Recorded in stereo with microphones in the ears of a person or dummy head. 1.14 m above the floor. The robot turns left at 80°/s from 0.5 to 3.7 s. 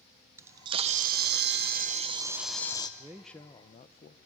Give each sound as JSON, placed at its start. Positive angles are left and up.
{"t": 0.4, "sound": "a camera shutter", "azimuth_deg": -20, "distance_m": 0.8}
{"t": 3.0, "sound": "a man speaking", "azimuth_deg": -165, "distance_m": 0.6}